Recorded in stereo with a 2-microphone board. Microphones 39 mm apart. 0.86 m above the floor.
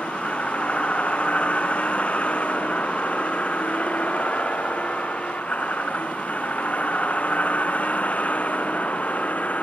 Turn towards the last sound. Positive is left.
turn(degrees=35)  # may be behind; listen again after turning